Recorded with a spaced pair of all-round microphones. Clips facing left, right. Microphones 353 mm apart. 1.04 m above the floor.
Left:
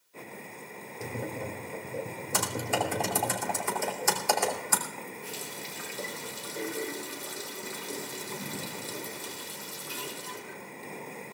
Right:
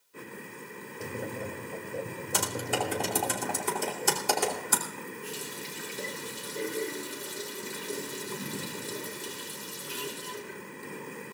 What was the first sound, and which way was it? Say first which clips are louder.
Tapping: even; centre (ahead or behind).